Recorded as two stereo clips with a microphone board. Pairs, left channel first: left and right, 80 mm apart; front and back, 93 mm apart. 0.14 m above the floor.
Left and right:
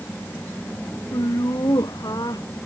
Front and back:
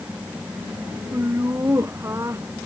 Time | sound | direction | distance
1.1 | laughter | 120° left | ?